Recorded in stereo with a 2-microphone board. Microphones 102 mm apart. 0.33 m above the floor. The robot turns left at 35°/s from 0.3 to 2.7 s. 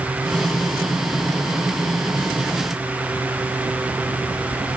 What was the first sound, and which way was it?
Only background noise.